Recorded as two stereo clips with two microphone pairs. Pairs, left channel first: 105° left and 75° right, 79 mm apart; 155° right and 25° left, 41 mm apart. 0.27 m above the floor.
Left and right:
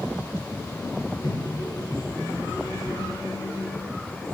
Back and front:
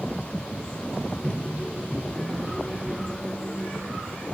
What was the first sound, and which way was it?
A microwave, 80° left.